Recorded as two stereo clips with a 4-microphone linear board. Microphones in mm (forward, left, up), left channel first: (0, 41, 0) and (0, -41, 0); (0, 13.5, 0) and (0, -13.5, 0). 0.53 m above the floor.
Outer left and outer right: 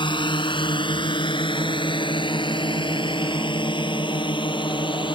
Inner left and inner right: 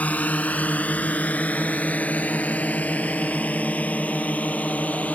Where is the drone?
75° left (ahead or behind).